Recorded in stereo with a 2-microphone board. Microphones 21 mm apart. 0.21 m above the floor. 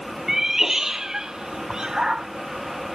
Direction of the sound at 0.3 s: 15° right (ahead or behind).